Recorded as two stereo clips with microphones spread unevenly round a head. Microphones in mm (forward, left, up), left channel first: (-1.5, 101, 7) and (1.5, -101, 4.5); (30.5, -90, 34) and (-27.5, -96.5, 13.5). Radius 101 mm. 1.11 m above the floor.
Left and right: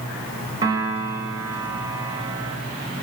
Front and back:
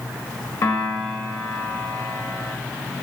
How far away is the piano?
About 1.4 m.